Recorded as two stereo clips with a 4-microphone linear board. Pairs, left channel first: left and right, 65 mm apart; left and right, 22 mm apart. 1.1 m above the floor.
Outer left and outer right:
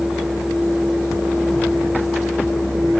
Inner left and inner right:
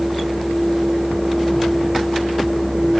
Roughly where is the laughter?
I don't hear laughter.